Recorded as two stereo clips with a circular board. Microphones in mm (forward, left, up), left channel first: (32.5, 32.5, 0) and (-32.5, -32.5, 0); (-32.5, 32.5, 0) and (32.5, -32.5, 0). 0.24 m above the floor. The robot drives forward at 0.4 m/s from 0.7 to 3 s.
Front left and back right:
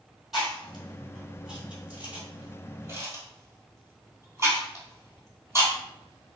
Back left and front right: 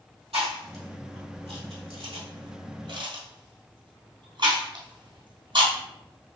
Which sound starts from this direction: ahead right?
Chewing, at 0.3 s.